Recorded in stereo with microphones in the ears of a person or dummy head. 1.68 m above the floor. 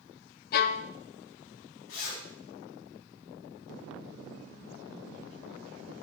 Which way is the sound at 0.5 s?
50° left (ahead or behind).